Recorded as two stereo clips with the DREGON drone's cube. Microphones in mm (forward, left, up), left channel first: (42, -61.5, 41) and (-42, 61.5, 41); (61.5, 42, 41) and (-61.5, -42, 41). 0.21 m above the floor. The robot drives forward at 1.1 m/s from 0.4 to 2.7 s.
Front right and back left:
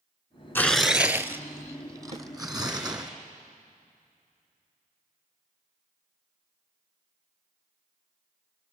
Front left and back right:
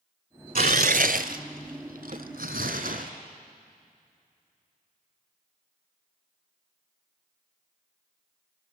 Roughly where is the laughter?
No laughter in this recording.